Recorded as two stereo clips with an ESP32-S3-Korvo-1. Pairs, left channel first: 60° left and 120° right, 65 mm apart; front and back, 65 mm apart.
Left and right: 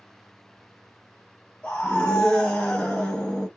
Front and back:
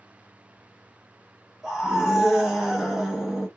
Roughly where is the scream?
Left.